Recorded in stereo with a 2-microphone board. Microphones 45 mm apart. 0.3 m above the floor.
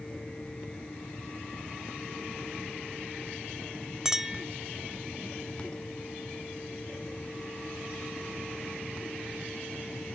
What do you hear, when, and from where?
4.0 s a clink: 15° right (ahead or behind), 0.9 m